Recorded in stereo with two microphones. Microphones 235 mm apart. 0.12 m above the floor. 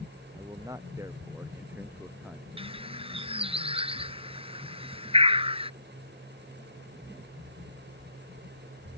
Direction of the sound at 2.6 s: 25° right (ahead or behind).